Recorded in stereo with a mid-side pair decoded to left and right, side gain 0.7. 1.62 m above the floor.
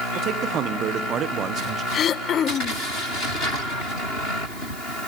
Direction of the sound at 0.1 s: 50° right.